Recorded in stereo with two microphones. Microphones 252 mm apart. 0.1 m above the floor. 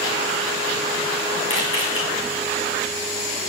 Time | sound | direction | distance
1.5 | a camera shutter | 55° left (ahead or behind) | 6.5 m